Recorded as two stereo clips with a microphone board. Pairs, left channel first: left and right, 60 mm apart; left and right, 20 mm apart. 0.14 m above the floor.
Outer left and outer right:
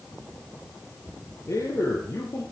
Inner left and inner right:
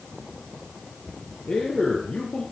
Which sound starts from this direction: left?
A man speaking, at 1.5 s.